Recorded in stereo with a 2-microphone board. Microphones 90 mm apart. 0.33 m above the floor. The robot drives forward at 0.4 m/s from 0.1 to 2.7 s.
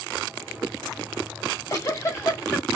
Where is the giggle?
40° left (ahead or behind), 1.2 m; by 2.7 s 30° left (ahead or behind), 1.5 m.